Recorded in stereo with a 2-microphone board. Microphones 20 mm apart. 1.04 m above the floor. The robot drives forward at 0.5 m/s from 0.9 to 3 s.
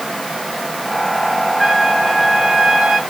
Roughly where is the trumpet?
Centre.